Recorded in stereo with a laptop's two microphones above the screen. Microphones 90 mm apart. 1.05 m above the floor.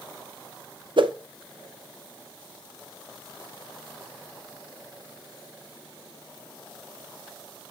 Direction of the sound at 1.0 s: 60° right (ahead or behind).